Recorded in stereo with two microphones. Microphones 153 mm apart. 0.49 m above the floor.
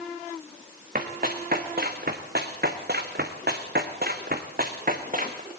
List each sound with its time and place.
0.9 s running footsteps: 60° right (ahead or behind), 3 m; by 5.4 s 55° right (ahead or behind), 3 m